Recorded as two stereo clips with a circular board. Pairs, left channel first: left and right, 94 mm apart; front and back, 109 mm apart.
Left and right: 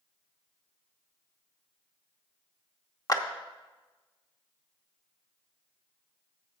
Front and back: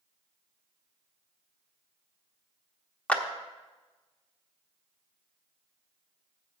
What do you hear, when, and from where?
3.1 s a clap: 70° left, 0.9 m